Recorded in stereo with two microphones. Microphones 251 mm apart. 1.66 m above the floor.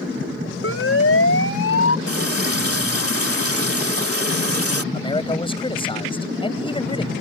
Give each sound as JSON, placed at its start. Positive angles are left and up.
{"t": 0.6, "sound": "a siren", "side_deg": 60}
{"t": 2.1, "sound": "a running tap", "side_deg": -65}
{"t": 4.9, "sound": "a man speaking", "side_deg": 20}